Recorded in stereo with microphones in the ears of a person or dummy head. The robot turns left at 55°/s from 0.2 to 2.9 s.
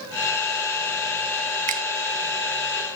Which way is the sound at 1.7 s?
40° right (ahead or behind).